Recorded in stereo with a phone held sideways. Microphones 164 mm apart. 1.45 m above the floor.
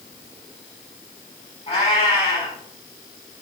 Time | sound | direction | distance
1.7 | a cat meowing | 40° left (ahead or behind) | 6.5 m